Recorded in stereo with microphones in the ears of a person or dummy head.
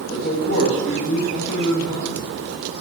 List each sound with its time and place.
0.1 s a man speaking: 55° left (ahead or behind), 1.2 m